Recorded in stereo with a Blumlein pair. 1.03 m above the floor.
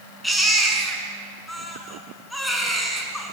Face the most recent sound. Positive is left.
turn(degrees=5)